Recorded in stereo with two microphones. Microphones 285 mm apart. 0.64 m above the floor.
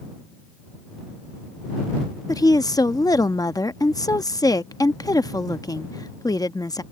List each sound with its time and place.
2.3 s a woman speaking: 15° left (ahead or behind)